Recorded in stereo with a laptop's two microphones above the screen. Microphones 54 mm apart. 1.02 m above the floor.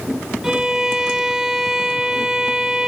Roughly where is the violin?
Centre.